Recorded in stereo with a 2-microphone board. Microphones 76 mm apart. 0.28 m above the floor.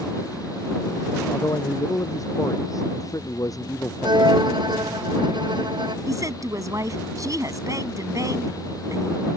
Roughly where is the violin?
Right.